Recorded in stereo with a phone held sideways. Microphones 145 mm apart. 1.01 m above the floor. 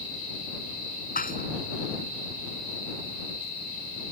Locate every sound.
1.1 s dishes clattering: 80° left